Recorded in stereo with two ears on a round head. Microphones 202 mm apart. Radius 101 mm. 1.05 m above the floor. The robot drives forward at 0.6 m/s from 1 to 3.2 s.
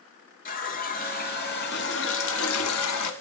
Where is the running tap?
40° left (ahead or behind), 1.8 m; by 3.1 s 85° left, 1.1 m.